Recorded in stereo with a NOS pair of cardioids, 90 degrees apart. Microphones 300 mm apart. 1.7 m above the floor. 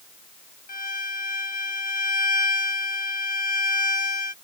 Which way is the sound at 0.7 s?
30° left.